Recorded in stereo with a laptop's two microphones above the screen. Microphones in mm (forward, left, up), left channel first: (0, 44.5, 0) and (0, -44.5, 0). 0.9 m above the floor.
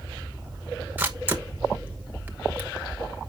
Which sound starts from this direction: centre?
A camera shutter, at 1.0 s.